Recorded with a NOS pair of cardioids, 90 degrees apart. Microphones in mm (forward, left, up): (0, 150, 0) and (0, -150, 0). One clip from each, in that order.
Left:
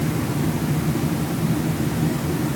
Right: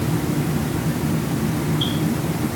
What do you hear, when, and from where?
Only background noise.